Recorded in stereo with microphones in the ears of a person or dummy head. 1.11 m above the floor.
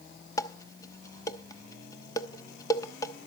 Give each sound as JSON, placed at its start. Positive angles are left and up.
{"t": 0.4, "sound": "dishes clattering", "side_deg": 20, "distance_m": 1.0}